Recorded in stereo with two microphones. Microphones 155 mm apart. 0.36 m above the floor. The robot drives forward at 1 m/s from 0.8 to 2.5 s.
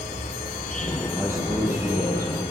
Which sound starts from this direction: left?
An insect, at 0.0 s.